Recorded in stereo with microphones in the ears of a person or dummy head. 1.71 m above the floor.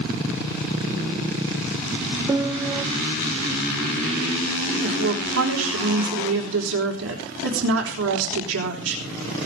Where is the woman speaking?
80° right, 4 m.